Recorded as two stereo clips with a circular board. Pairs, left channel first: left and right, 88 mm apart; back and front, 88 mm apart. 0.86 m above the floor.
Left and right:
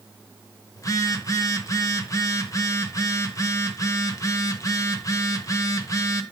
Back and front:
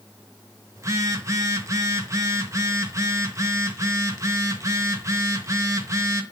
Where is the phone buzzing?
50° left, 0.9 m.